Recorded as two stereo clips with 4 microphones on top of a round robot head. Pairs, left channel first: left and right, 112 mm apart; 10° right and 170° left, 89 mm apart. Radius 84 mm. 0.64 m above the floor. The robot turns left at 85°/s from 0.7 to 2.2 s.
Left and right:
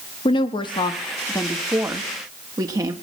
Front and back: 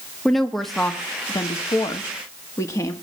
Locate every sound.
0.2 s a woman speaking: 80° left, 1.2 m; by 2.9 s 50° right, 1.2 m